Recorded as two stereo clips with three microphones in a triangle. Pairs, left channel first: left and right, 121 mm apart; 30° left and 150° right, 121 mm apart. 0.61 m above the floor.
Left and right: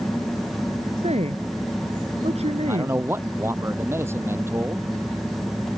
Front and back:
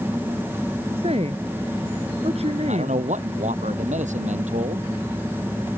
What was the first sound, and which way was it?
A woman speaking, 115° right.